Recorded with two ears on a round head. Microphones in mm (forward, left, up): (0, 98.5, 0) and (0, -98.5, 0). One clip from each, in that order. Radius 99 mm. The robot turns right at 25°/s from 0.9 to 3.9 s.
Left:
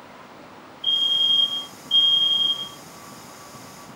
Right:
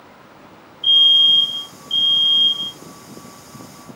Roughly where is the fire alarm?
Ahead right.